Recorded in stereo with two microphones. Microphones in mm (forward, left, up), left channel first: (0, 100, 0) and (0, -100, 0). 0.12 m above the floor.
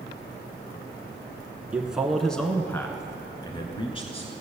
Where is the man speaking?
5° right (ahead or behind), 1.3 m; by 4.3 s 30° left (ahead or behind), 1.5 m.